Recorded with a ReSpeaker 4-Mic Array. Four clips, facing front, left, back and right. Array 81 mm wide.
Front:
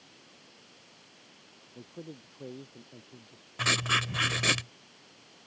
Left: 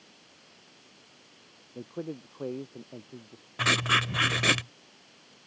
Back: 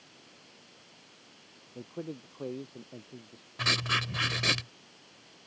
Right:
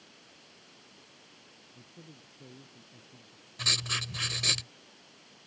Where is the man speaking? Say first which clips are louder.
Left 17 dB, back 5 dB; 110° left.